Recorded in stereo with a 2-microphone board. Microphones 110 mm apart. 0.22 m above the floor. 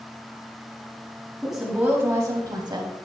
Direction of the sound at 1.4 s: Centre (ahead or behind).